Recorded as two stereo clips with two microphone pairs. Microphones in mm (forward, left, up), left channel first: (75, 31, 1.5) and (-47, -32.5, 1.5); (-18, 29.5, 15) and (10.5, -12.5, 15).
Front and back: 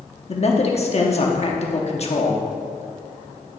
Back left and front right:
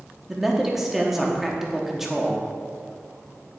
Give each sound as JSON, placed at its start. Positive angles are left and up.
{"t": 0.3, "sound": "a man speaking", "azimuth_deg": 25, "distance_m": 1.0}